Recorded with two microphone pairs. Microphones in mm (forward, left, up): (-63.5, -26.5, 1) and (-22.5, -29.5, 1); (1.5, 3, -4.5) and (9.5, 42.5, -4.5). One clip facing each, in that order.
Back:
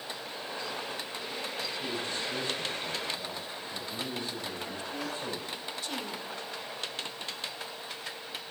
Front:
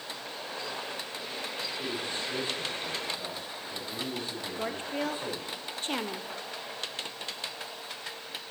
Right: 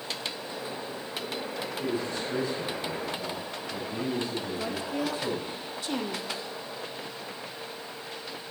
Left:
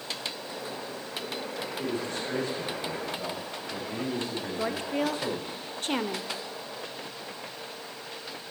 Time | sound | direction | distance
1.8 | a man speaking | 60° left | 4 m
4.6 | a woman speaking | 40° left | 0.7 m